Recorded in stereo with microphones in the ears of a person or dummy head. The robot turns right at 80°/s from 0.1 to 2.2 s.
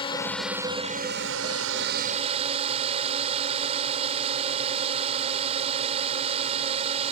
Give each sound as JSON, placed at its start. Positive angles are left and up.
{"t": 0.0, "sound": "a drone", "azimuth_deg": 155}